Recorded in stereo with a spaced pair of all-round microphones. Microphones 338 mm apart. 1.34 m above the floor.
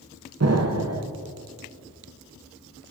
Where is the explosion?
50° right (ahead or behind), 0.7 m.